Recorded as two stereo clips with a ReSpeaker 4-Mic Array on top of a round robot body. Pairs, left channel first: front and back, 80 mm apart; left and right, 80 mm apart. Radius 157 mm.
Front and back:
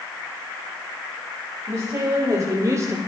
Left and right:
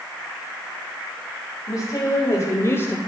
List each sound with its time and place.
1.7 s a woman speaking: 130° left, 2.5 m; by 3.0 s 145° left, 1.1 m